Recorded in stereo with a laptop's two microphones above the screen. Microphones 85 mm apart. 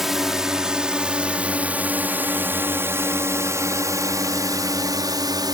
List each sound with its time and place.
0.0 s a drone: 5° right (ahead or behind); by 5.5 s 55° right (ahead or behind)